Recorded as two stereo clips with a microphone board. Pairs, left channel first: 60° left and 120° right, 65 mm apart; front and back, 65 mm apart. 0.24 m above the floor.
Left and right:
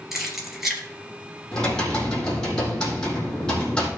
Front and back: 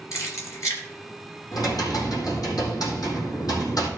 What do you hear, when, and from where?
0.1 s keys jangling: 35° right, 3 m
1.5 s typing on a keyboard: 20° right, 4.5 m